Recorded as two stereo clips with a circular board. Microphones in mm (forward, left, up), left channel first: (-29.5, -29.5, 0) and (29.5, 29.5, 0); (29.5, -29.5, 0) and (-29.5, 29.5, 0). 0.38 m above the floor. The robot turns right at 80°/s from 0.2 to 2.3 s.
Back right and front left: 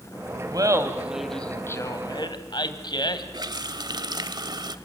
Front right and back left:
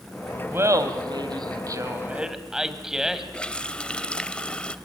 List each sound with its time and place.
0.5 s laughter: 75° left, 2.5 m; by 3.2 s 140° right, 2.5 m
3.3 s a running tap: 30° left, 1.2 m